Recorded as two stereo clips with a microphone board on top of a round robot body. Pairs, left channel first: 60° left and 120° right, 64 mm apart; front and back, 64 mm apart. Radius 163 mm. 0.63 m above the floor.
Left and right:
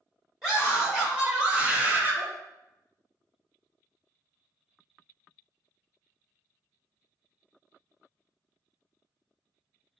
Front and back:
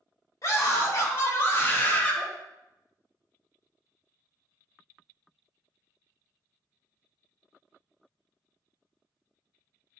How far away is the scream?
About 1.9 m.